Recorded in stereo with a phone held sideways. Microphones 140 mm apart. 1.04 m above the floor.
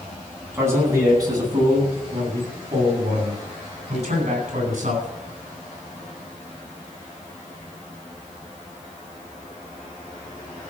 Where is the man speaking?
20° right (ahead or behind), 9 m; by 5.1 s 60° right (ahead or behind), 11 m.